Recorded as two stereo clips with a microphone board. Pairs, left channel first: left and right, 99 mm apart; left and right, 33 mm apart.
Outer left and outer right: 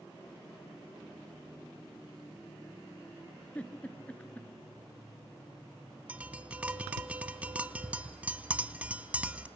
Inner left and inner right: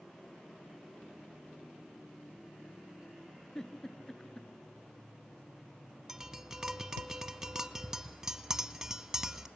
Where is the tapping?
15° right (ahead or behind), 1.0 m.